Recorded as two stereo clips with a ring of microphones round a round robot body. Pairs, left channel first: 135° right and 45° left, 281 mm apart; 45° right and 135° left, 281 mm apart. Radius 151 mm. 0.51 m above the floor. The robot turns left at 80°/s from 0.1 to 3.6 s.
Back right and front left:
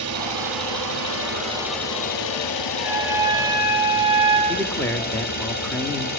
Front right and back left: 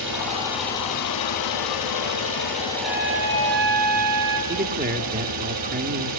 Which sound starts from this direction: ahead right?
A trumpet, at 2.7 s.